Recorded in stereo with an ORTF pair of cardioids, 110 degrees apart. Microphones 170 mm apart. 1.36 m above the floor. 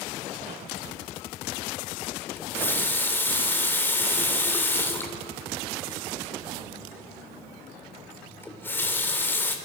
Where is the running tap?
15° left, 3.5 m.